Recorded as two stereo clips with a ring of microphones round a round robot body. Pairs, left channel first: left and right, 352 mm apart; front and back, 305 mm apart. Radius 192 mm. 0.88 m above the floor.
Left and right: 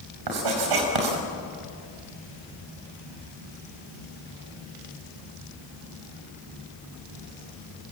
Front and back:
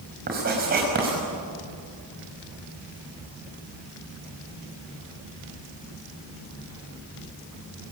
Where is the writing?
115° right, 6 m.